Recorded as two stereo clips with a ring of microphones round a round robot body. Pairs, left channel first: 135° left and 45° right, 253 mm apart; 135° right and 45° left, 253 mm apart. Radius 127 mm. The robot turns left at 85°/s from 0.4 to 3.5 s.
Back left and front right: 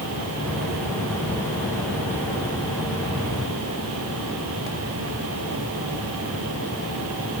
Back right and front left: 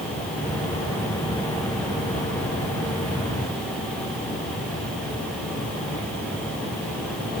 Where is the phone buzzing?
I don't hear a phone buzzing.